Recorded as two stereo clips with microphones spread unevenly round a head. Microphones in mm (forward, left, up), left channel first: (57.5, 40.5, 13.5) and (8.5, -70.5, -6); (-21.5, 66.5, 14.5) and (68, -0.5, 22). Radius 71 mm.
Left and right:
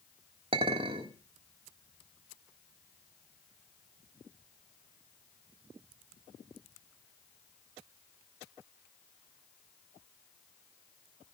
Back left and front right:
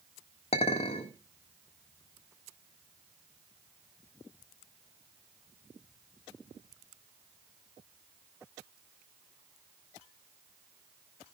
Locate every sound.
0.5 s a clink: 170° right, 1.5 m